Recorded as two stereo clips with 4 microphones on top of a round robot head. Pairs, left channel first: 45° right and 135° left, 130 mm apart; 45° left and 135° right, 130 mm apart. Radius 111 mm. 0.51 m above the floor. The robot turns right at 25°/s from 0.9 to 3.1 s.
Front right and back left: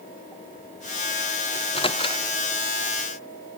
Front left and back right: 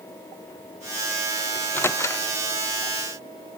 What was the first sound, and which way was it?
A microwave, 25° right.